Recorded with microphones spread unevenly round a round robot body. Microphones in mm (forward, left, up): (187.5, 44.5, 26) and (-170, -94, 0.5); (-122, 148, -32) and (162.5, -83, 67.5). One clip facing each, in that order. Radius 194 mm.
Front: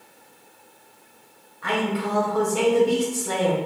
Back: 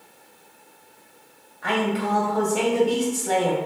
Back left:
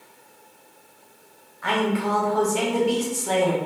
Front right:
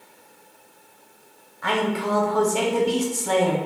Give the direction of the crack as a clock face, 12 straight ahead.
No crack in this recording.